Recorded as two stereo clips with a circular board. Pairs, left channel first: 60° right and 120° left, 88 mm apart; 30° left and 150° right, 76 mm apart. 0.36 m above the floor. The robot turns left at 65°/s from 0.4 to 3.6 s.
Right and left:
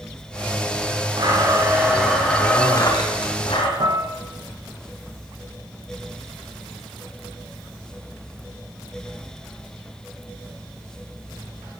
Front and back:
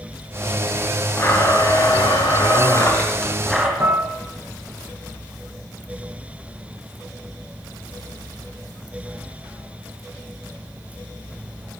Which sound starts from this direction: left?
A blender, at 1.2 s.